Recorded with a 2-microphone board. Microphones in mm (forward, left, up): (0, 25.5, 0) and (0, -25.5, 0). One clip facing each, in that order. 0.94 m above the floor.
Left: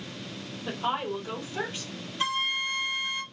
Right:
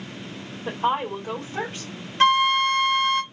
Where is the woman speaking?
45° right (ahead or behind), 2.5 m.